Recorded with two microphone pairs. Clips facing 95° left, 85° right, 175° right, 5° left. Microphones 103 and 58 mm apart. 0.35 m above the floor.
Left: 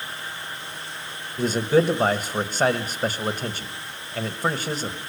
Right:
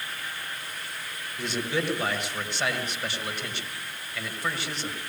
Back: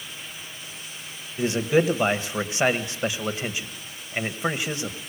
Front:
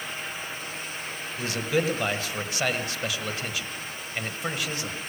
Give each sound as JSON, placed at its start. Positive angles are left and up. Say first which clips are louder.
{"t": 1.4, "sound": "a man speaking", "louder": "left 10 dB, back 5 dB", "azimuth_deg": 125, "distance_m": 1.8}